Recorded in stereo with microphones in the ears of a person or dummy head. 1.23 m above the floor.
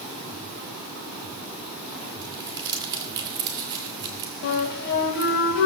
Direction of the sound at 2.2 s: 25° right (ahead or behind).